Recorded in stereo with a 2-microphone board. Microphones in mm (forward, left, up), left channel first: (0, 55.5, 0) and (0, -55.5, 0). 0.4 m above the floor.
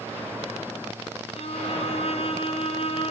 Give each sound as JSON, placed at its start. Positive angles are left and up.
{"t": 1.4, "sound": "a violin", "side_deg": 65, "distance_m": 2.0}